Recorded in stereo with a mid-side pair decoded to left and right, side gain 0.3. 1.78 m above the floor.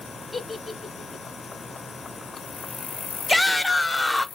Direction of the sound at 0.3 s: 15° left.